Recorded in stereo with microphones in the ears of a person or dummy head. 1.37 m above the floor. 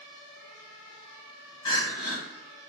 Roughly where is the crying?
Left.